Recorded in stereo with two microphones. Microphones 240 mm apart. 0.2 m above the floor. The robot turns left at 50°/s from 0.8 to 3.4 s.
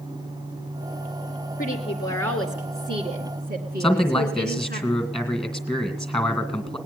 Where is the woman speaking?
40° left, 2 m; by 4.8 s 50° right, 2 m.